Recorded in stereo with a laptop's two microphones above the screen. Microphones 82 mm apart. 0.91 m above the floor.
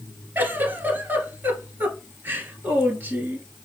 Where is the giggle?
25° right (ahead or behind), 2 m.